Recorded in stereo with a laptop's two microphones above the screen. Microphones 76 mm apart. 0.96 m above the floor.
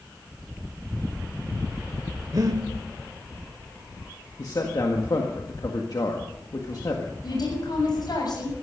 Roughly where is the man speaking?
Left.